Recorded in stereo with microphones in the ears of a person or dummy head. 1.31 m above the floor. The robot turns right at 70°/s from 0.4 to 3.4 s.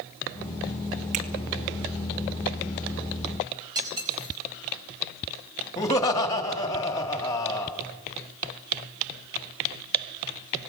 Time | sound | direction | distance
1.1 | a finger snap | 40° right (ahead or behind) | 2 m
3.8 | cutlery clinking | 20° right (ahead or behind) | 4.5 m
5.8 | laughter | 15° left (ahead or behind) | 3 m